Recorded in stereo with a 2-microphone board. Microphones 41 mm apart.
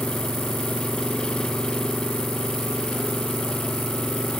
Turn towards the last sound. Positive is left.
turn(degrees=20)  # may be behind; listen again after turning